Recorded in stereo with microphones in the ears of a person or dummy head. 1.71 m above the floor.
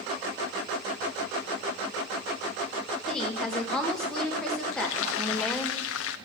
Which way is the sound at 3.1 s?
5° left (ahead or behind).